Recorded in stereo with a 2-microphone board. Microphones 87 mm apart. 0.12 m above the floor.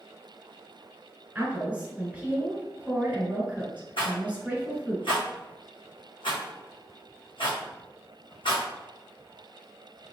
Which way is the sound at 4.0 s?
85° left.